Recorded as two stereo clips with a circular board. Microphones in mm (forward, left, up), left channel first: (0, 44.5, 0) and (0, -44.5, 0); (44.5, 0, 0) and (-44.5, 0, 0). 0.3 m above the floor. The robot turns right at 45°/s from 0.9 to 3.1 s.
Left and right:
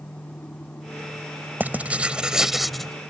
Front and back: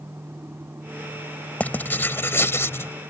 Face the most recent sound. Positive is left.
turn(degrees=15)